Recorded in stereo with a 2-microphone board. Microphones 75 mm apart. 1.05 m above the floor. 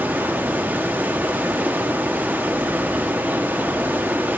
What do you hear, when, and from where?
0.0 s running water: 25° right (ahead or behind), 0.9 m